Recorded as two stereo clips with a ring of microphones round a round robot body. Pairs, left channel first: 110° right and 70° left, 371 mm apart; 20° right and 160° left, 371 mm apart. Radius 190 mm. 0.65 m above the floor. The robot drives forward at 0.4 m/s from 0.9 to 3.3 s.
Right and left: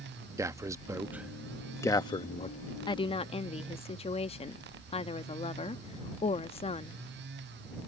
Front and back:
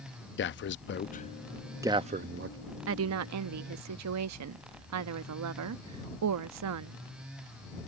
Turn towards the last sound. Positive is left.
turn(degrees=180)